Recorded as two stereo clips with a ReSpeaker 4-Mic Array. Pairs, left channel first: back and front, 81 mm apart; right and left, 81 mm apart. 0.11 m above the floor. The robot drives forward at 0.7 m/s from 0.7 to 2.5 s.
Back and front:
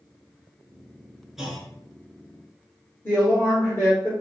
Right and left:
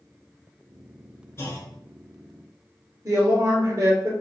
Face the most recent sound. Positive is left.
turn(degrees=130)